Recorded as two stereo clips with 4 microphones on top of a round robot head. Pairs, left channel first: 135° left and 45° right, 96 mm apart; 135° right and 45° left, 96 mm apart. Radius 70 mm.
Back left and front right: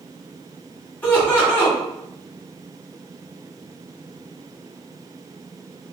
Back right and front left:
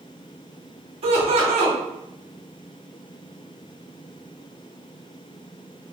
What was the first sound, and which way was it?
Laughter, 60° left.